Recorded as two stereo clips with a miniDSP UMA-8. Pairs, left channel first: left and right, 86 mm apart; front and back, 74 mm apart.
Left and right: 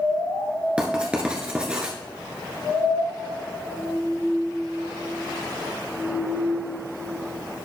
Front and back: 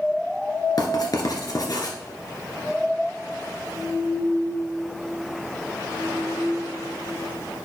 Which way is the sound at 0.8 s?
15° right.